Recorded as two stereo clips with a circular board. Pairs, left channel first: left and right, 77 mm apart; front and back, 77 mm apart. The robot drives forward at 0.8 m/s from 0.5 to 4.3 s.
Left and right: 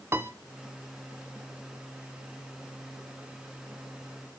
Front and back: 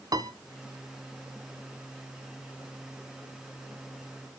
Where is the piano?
145° right, 0.6 m.